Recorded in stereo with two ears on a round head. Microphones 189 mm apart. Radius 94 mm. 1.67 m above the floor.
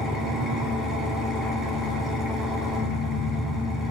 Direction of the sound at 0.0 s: Centre (ahead or behind).